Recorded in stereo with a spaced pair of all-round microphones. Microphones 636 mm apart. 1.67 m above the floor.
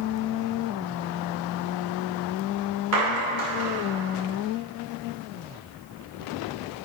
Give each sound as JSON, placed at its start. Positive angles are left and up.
{"t": 2.9, "sound": "a clap", "side_deg": -65, "distance_m": 5.0}